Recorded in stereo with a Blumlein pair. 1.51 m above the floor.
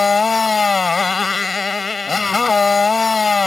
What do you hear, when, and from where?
0.0 s a motorcycle: 10° left